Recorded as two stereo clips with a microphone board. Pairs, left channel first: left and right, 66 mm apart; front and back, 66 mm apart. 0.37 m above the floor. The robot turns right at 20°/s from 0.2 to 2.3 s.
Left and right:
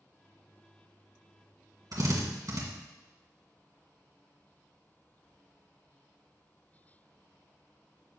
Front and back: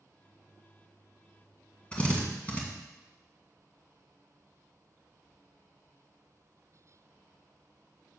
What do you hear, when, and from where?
1.9 s a drill: 70° right, 2 m; by 2.6 s 65° right, 2 m